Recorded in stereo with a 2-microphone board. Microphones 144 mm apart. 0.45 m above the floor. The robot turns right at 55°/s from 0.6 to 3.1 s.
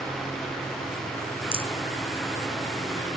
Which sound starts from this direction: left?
A rattle, at 1.5 s.